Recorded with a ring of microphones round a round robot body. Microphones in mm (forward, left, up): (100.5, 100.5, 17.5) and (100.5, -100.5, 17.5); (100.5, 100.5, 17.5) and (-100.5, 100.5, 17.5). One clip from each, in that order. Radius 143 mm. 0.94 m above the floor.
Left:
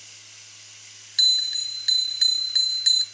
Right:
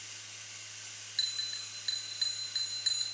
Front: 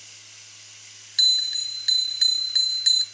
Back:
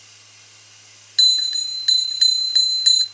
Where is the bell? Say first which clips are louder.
Left 15 dB, back 4 dB; 120° left, 1.2 m.